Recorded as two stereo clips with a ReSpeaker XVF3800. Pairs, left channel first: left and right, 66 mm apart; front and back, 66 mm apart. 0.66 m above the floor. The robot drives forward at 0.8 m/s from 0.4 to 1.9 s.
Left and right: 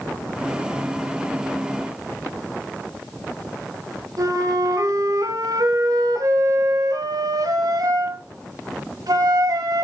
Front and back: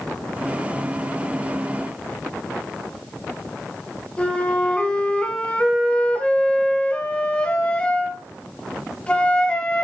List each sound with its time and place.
4.2 s a flute: 75° right, 3 m